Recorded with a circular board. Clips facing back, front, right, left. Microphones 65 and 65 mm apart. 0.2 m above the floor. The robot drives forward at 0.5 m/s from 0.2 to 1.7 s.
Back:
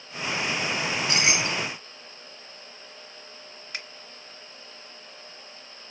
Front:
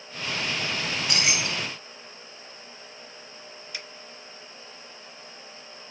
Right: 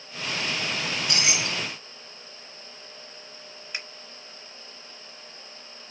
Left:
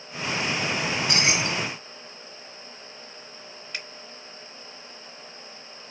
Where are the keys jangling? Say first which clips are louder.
Back 3 dB, left 3 dB; 125° left, 1.0 m; by 1.7 s 145° left, 1.2 m.